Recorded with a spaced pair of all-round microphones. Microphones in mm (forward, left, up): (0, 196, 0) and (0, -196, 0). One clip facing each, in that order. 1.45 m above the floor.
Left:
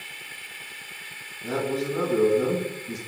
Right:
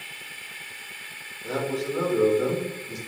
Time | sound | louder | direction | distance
1.4 | a man speaking | left 1 dB | 60° left (ahead or behind) | 3 m